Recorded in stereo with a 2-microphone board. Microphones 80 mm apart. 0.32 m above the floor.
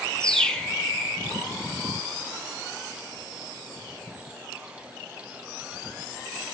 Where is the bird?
10° left (ahead or behind), 0.6 m.